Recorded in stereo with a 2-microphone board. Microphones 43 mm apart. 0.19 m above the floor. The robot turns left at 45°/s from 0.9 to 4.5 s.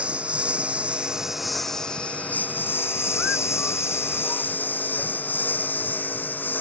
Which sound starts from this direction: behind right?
A lawn mower, at 0.0 s.